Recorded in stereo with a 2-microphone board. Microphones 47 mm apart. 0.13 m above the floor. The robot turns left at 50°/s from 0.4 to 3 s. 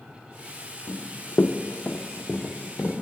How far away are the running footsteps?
About 0.8 m.